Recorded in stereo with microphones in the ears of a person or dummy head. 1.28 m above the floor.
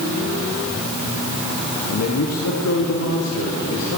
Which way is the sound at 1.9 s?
80° left.